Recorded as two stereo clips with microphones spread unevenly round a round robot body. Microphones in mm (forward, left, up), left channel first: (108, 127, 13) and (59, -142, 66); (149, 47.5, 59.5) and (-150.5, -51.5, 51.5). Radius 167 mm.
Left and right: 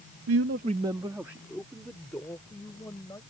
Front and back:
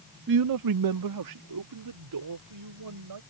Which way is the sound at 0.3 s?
120° right.